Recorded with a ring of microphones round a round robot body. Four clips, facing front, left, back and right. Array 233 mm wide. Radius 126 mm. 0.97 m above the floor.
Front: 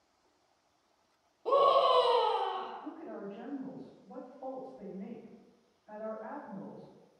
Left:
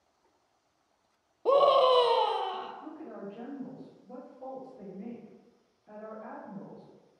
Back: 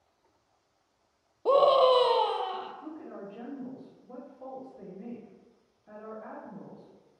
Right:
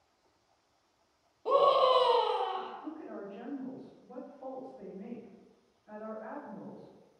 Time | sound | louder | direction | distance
1.4 | a scream | left 3 dB, back 4 dB | 140° left | 0.5 m
2.8 | a woman speaking | even, back 1 dB | 165° left | 1.9 m